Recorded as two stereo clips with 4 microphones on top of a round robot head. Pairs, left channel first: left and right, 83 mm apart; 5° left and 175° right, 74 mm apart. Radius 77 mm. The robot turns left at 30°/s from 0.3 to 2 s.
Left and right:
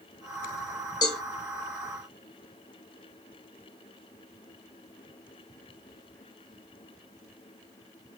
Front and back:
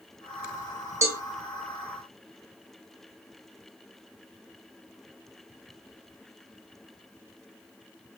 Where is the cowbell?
130° left, 1.1 m; by 1.2 s 125° left, 1.1 m.